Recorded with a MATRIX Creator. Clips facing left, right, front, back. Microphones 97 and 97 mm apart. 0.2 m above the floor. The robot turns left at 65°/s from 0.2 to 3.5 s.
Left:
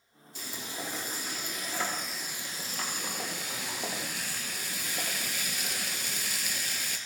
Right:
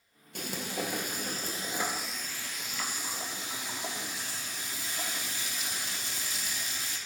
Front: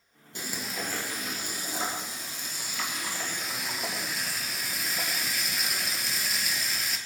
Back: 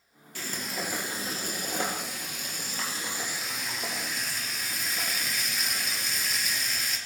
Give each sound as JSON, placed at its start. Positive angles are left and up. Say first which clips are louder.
{"t": 0.3, "sound": "frying", "louder": "right 5 dB, back 1 dB", "azimuth_deg": -65, "distance_m": 2.0}